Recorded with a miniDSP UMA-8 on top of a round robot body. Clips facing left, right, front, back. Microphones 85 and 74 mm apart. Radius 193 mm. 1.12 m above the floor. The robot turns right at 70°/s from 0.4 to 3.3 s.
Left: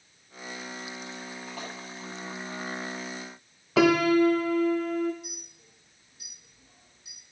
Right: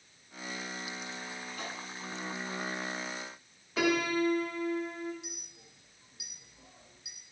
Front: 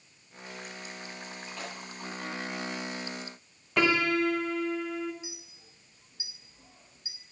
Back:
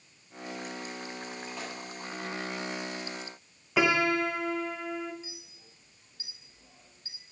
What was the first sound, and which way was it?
A splash, 85° left.